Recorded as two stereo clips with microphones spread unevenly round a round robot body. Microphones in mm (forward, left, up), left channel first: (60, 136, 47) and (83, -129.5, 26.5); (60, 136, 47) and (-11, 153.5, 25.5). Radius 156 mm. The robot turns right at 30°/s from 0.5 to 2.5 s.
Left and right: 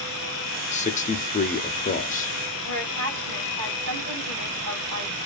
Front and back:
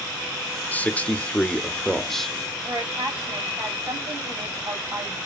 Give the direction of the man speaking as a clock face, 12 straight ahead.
10 o'clock.